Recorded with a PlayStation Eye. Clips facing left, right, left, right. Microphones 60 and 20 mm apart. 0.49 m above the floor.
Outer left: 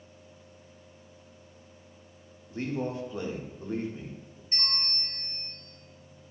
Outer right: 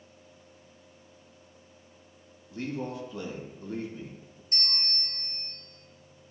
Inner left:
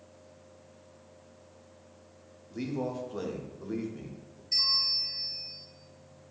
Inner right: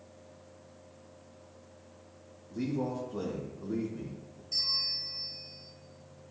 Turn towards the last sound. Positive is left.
turn(degrees=45)  # may be behind; listen again after turning